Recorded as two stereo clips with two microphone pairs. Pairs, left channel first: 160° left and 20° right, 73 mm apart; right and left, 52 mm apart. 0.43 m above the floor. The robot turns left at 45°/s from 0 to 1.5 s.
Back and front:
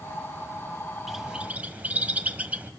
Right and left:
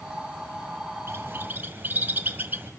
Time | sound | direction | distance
1.1 | a bird | 65° left | 1.5 m